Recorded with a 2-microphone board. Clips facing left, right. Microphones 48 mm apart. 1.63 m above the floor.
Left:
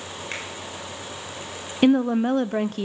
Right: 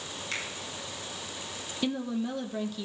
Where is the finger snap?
30° left (ahead or behind), 6.5 m.